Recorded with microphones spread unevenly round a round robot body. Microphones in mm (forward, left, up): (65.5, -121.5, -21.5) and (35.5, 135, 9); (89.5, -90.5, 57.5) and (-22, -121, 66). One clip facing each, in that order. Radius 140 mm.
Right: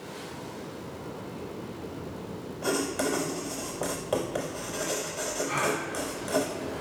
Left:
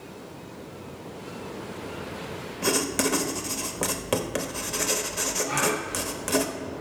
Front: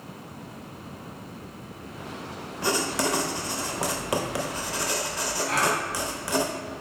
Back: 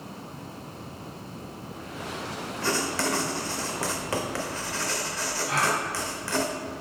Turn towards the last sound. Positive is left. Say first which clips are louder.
# left 3 dB, front 1 dB
turn(degrees=-5)